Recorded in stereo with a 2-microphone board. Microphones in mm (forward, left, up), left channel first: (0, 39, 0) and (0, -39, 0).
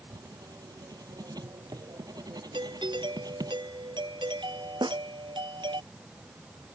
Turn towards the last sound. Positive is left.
turn(degrees=-75)  # may be behind; listen again after turning